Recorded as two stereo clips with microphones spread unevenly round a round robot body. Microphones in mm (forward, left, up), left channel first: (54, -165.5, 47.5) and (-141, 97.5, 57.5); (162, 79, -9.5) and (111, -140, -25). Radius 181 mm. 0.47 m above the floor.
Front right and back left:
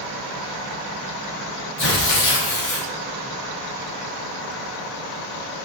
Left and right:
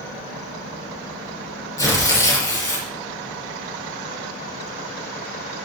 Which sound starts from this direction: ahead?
Tearing paper, at 1.8 s.